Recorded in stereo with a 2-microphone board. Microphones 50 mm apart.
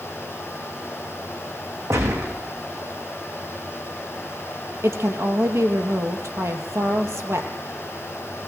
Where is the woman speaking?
65° right (ahead or behind), 3 m.